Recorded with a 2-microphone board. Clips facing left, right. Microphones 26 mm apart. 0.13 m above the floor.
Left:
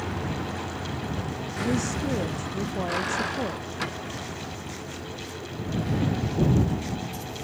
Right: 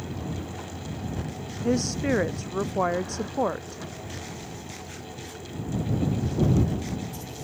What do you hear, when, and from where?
0.0 s a vehicle: 75° left (ahead or behind); by 7.5 s 60° left (ahead or behind)
1.6 s a woman speaking: 50° right (ahead or behind)